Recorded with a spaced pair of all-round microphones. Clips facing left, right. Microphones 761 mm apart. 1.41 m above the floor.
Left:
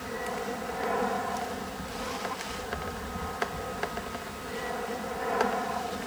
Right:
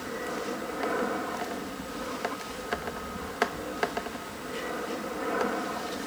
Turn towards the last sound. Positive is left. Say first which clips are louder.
# right 1 dB
turn(degrees=30)  # may be behind; listen again after turning